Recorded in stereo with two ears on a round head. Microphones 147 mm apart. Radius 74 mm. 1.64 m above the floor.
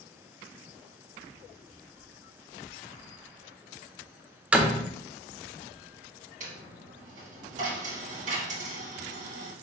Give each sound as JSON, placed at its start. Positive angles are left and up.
{"t": 4.5, "sound": "a door slam", "side_deg": -5, "distance_m": 0.5}
{"t": 6.4, "sound": "a dropped coin", "side_deg": -45, "distance_m": 1.4}